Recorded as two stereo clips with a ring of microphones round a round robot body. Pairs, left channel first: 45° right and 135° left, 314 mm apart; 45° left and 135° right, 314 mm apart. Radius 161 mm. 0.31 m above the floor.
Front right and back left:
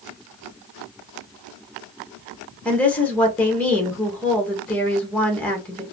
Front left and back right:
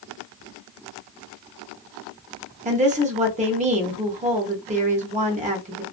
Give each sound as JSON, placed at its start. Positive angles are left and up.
{"t": 2.6, "sound": "a woman speaking", "azimuth_deg": -125, "distance_m": 0.9}